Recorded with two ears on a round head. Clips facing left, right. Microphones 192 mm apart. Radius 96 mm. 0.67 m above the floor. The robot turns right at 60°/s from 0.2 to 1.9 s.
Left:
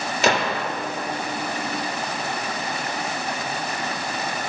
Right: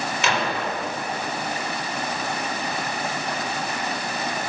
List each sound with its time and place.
0.2 s a gunshot: 30° left (ahead or behind), 0.5 m; by 0.6 s 55° left (ahead or behind), 0.5 m